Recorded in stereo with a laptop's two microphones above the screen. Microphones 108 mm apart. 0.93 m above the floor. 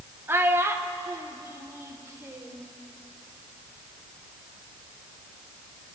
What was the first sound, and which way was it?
A child speaking, 20° right (ahead or behind).